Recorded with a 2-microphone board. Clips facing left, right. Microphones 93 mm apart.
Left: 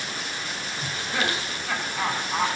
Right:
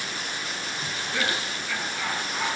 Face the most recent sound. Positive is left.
turn(degrees=70)  # may be behind; listen again after turning